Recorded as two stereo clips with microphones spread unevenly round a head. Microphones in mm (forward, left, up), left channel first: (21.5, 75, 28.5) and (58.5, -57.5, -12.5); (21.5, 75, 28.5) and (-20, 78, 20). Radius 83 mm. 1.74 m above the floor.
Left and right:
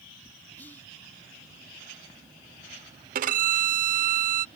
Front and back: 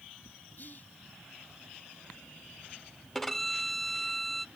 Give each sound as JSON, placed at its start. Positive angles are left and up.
{"t": 0.6, "sound": "whispering", "azimuth_deg": 30}
{"t": 3.1, "sound": "a violin", "azimuth_deg": -75}